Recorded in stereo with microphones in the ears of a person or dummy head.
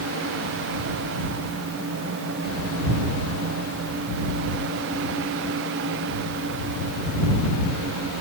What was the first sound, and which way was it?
Only background noise.